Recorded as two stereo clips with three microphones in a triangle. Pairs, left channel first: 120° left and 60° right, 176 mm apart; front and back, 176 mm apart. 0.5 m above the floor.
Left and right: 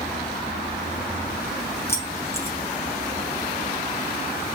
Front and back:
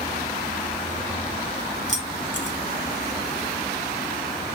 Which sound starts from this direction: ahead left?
Keys jangling, at 1.9 s.